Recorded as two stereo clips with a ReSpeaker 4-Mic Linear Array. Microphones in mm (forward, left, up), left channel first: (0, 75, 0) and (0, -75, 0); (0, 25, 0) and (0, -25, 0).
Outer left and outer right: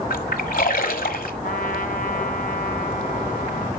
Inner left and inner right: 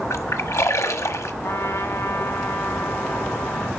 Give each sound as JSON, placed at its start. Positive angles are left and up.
{"t": 0.1, "sound": "a splash", "side_deg": 75, "distance_m": 1.2}
{"t": 1.4, "sound": "a trumpet", "side_deg": 70, "distance_m": 1.2}